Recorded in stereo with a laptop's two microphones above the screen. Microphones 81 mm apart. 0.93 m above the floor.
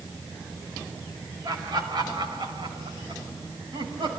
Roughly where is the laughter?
Right.